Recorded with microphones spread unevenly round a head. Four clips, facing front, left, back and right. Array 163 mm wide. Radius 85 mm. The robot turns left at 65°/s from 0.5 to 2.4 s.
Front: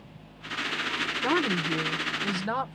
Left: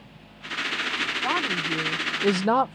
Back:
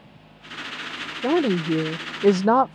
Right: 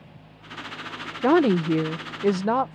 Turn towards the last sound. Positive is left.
turn(degrees=170)